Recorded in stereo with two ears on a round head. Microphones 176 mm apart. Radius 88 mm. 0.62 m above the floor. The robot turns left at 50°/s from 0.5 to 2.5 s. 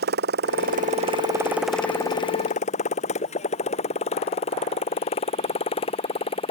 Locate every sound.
0.0 s a motorcycle: 55° right (ahead or behind); by 6.5 s 30° left (ahead or behind)